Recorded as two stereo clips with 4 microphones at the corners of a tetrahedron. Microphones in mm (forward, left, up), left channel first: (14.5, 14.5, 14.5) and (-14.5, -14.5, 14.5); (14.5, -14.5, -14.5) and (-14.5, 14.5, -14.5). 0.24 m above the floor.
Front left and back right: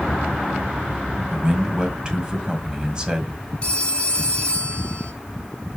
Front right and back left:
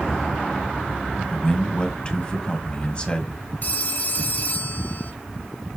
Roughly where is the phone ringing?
Ahead.